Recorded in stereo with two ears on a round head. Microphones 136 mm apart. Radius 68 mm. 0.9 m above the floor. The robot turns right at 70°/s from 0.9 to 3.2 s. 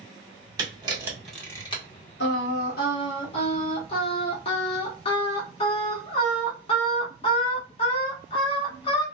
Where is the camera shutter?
25° right (ahead or behind), 0.9 m; by 1.8 s 40° left (ahead or behind), 0.9 m.